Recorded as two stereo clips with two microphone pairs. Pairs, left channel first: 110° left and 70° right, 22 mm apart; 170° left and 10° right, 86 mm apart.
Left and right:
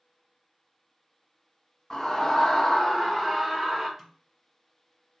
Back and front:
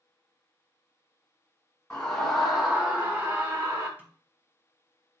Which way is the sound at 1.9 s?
105° left.